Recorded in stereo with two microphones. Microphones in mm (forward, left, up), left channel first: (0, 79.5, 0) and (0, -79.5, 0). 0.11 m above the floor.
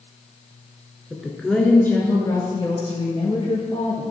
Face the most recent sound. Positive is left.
turn(degrees=45)  # may be behind; listen again after turning